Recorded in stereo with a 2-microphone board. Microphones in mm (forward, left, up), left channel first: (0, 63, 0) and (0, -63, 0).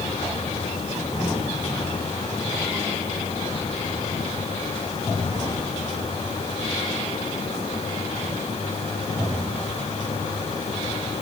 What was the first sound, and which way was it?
Only background noise.